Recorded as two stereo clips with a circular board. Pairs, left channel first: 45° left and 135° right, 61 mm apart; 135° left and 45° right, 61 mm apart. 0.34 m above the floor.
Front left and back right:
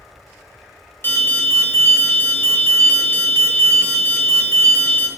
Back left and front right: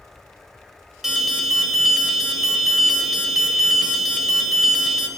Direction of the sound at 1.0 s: 35° left.